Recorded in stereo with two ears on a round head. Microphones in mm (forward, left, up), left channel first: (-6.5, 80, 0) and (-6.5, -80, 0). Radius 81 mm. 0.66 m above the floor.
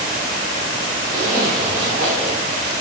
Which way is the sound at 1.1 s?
55° right (ahead or behind).